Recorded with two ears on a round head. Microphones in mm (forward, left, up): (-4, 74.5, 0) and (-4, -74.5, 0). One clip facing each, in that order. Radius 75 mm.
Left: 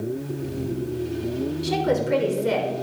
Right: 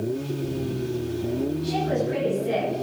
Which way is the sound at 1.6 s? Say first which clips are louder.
Left 2 dB; 85° left.